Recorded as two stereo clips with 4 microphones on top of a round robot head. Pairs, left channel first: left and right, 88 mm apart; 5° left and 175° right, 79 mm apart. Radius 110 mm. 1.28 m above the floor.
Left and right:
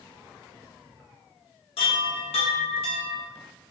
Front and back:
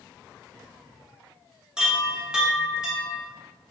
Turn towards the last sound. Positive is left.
turn(degrees=105)